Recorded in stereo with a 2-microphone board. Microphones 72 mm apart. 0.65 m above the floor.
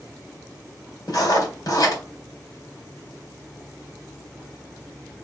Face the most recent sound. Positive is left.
turn(degrees=60)  # may be behind; listen again after turning